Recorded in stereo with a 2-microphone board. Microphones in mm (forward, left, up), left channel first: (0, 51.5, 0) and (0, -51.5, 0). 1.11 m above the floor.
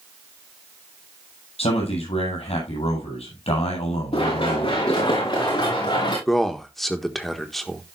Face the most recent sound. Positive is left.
turn(degrees=0)  # may be behind; listen again after turning